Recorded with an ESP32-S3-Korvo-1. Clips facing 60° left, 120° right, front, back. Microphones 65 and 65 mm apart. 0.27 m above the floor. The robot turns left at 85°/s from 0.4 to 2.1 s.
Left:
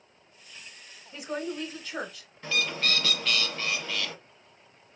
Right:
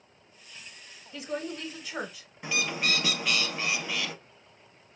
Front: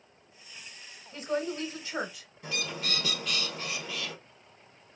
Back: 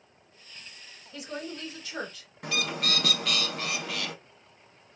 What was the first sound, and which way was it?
A woman speaking, 20° left.